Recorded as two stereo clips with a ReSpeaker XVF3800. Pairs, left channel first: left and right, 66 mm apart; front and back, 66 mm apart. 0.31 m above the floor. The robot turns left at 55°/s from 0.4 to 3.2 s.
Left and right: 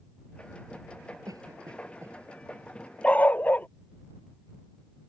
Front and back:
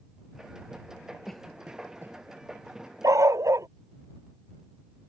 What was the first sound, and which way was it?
A cough, 85° right.